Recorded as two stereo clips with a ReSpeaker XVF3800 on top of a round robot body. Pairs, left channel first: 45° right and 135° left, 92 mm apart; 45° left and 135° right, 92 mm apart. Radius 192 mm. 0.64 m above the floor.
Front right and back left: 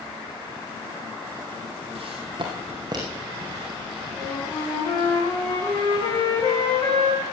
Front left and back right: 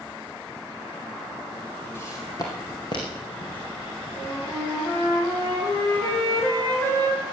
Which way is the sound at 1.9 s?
110° left.